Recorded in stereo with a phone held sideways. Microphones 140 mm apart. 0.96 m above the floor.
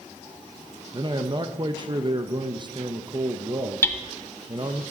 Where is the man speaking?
35° right (ahead or behind), 0.5 m.